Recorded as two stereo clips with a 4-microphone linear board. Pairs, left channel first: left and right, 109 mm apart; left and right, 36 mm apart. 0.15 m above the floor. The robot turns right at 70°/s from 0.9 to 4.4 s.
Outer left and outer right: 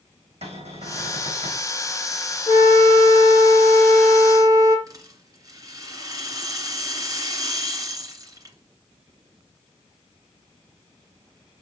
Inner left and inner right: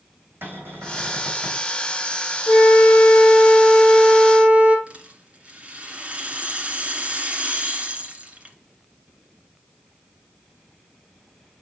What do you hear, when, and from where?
0.4 s a cupboard door: 85° right, 4.5 m; by 1.7 s 30° right, 4.5 m
2.5 s a flute: 70° left, 3 m; by 4.8 s 150° right, 3 m
4.9 s a rattle: 35° right (ahead or behind), 2 m